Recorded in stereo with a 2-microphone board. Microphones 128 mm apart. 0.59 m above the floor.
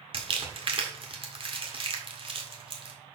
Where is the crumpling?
45° right (ahead or behind), 1.6 m.